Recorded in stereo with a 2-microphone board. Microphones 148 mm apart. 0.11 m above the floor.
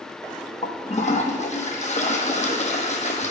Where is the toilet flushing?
55° left (ahead or behind), 0.8 m.